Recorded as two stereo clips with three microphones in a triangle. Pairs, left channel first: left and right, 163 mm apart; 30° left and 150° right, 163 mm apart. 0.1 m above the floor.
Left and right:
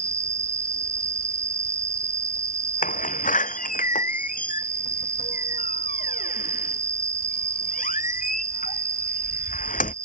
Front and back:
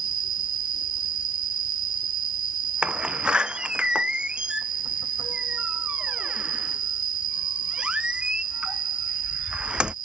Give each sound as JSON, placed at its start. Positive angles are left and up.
{"t": 0.0, "sound": "an insect", "azimuth_deg": -160}
{"t": 2.8, "sound": "a door slam", "azimuth_deg": 125}